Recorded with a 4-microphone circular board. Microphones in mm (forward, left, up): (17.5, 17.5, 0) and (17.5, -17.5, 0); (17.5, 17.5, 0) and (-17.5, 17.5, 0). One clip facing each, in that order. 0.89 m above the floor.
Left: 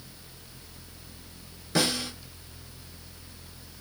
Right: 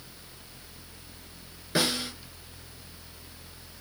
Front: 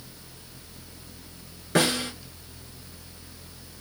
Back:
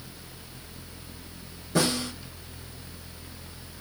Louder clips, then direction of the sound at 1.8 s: Left 1 dB, front 2 dB; 15° right.